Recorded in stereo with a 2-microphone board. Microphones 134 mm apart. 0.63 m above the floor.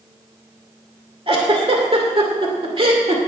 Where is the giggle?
45° right (ahead or behind), 2 m.